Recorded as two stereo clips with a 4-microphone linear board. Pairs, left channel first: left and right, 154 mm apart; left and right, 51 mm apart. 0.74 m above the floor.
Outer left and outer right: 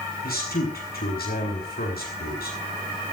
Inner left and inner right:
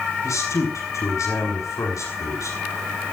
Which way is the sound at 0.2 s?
85° left.